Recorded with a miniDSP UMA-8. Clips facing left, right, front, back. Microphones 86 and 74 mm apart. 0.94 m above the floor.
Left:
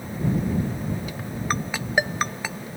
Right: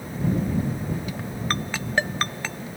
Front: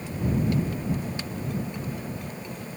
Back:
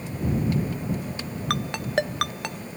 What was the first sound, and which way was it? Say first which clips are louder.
A ringtone: left 2 dB, back 10 dB; 170° left.